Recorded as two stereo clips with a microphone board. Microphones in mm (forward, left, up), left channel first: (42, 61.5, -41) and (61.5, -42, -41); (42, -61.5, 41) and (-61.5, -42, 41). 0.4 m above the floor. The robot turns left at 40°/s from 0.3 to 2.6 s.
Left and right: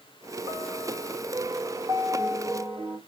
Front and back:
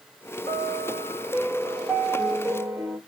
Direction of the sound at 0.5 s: 40° right.